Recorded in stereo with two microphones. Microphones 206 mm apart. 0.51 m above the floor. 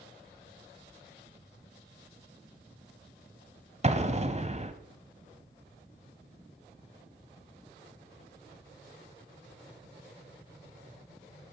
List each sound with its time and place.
3.8 s an explosion: 35° right (ahead or behind), 1.0 m